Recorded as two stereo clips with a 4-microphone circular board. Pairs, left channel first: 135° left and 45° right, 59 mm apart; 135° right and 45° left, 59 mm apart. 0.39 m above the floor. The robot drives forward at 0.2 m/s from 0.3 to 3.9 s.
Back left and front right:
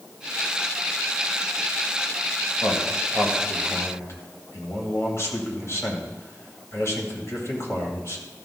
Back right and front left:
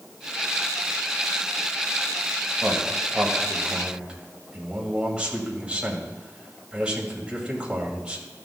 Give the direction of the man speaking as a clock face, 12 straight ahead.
8 o'clock.